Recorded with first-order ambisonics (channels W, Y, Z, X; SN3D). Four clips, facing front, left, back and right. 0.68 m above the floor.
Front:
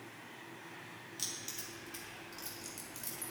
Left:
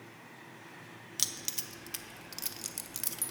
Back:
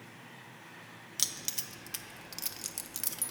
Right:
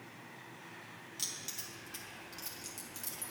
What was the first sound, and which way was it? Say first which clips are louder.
Keys jangling: left 6 dB, back 7 dB; 135° left.